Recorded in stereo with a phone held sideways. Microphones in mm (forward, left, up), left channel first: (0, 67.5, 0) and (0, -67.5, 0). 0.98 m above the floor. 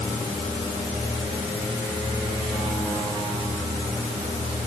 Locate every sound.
Only background noise.